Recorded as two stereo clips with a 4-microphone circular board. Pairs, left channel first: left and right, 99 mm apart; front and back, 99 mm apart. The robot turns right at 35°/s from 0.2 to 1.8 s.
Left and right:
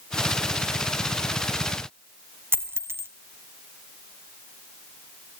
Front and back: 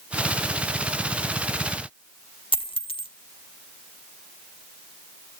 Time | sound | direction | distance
2.5 | a dropped coin | 25° right | 1.2 m